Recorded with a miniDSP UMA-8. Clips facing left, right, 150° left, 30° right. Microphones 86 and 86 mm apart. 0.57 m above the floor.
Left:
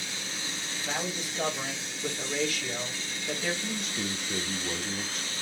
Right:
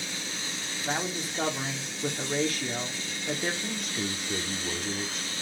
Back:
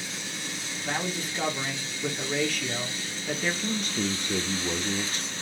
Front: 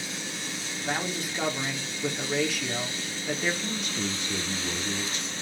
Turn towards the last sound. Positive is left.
turn(degrees=-175)